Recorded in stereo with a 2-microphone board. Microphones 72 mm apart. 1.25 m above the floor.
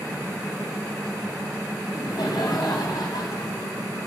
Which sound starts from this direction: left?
Laughter, at 1.8 s.